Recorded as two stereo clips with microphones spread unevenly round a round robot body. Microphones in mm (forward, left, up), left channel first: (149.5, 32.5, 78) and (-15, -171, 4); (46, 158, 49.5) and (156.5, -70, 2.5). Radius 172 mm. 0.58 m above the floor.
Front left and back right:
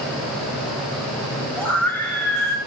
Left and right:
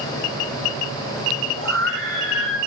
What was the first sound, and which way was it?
A scream, 35° right.